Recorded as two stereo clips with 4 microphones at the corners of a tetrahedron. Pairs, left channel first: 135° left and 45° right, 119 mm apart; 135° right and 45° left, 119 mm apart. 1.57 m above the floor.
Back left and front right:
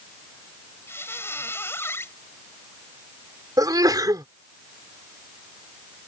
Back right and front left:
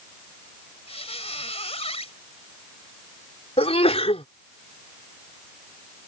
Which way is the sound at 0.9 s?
155° right.